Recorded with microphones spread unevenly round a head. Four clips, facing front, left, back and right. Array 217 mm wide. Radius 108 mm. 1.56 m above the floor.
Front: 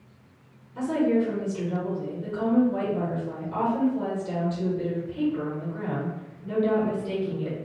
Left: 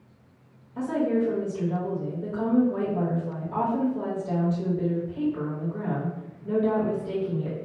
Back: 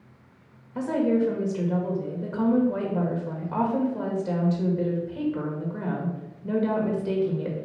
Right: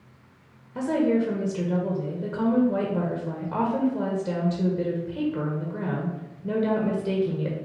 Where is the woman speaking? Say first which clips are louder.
Right 2 dB, even; 110° right, 1.3 m.